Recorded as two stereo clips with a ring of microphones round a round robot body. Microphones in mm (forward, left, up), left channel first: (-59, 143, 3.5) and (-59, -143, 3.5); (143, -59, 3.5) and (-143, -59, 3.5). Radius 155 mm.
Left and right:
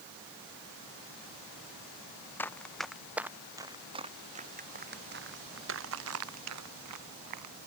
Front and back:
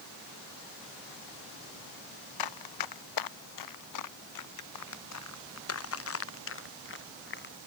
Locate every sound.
2.4 s running footsteps: 5° left; by 7.5 s 55° right